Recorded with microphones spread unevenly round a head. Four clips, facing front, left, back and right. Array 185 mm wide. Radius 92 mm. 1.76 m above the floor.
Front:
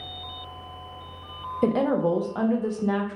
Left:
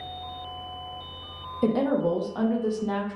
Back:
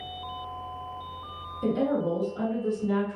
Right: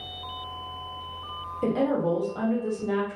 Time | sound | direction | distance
1.6 | a woman speaking | 10° left | 0.5 m